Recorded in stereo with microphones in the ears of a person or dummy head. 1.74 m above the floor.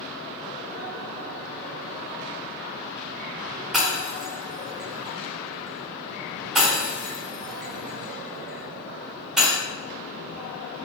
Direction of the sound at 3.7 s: Centre (ahead or behind).